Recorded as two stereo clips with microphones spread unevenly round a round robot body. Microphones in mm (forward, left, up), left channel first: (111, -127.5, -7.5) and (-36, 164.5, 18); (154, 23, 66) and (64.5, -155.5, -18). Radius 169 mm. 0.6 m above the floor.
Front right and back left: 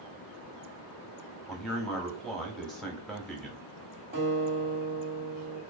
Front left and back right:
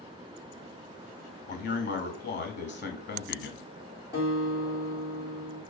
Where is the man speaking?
20° left, 1.0 m.